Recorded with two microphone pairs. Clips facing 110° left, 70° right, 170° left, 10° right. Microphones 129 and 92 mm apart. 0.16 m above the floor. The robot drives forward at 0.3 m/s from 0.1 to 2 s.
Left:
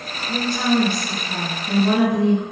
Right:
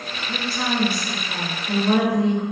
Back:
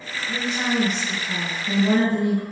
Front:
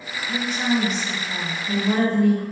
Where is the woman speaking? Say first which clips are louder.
Left 6 dB, front 2 dB; 165° left, 1.2 m; by 2.4 s 170° left, 1.6 m.